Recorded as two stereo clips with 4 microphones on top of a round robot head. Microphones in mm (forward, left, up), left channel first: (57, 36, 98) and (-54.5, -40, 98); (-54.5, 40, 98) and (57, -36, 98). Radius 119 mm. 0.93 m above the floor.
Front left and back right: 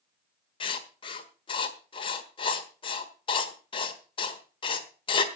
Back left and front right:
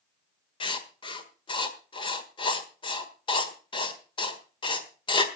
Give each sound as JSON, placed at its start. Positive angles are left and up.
{"t": 0.6, "sound": "writing", "azimuth_deg": 90, "distance_m": 1.5}